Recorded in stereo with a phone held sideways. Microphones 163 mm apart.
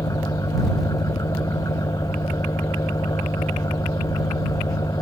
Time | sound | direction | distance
0.0 | an engine running | 20° left (ahead or behind) | ?